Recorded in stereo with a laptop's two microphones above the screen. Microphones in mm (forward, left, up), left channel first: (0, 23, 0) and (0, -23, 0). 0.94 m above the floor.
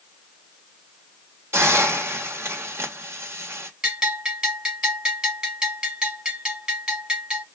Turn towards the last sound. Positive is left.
turn(degrees=-20)  # may be behind; listen again after turning